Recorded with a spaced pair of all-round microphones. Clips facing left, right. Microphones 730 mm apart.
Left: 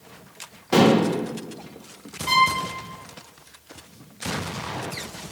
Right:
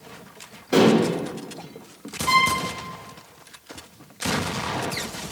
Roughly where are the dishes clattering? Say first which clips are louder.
Right 1 dB; left.